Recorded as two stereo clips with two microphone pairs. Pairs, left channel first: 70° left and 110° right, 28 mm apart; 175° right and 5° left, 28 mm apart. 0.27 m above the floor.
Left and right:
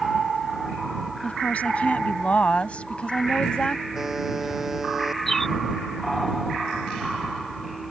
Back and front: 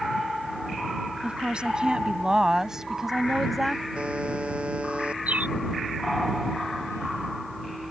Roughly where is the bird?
Ahead.